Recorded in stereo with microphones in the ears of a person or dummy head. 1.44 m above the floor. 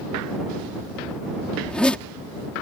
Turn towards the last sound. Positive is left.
turn(degrees=0)  # may be behind; listen again after turning